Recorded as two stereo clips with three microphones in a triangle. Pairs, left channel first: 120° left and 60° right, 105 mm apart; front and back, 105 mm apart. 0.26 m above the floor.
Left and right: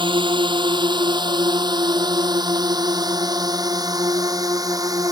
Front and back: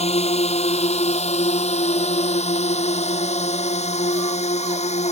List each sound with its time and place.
0.0 s a drone: 20° right; by 5.1 s 5° right